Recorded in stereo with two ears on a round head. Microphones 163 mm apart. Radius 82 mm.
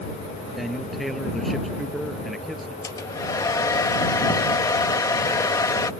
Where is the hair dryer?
20° left (ahead or behind).